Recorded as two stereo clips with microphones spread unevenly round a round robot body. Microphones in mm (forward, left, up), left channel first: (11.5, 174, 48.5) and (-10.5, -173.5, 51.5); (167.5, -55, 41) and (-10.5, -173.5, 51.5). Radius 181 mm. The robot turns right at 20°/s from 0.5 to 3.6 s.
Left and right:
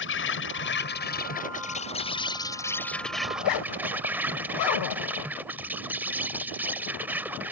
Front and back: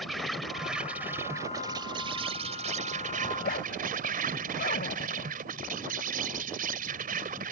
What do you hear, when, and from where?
0.0 s an insect: 120° left; by 7.5 s 175° right
3.3 s a zipper: 70° left; by 5.3 s 80° left